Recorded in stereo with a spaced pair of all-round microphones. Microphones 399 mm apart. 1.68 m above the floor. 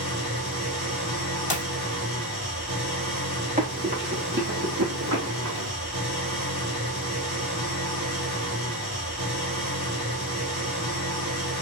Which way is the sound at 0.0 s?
40° right (ahead or behind).